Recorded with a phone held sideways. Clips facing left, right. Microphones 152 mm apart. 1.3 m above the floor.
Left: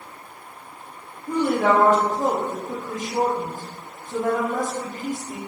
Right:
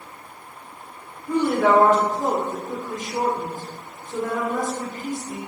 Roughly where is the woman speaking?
Left.